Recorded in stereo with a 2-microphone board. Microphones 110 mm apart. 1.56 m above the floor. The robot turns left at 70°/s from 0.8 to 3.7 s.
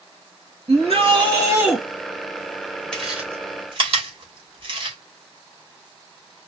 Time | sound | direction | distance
0.7 | a shout | 105° right | 1.3 m
2.9 | chewing | 10° left (ahead or behind) | 1.4 m